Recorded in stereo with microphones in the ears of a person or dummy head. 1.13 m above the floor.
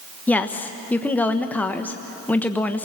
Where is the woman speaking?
10° left (ahead or behind), 1.1 m.